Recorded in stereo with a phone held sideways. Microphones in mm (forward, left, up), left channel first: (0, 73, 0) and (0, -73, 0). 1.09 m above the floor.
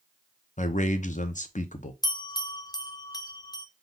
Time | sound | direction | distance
0.6 | a man speaking | 55° left (ahead or behind) | 0.7 m
2.0 | a bell | 25° left (ahead or behind) | 0.5 m